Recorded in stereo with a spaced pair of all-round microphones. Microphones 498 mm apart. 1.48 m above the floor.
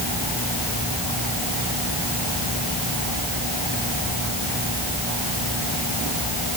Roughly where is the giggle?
No giggle in this recording.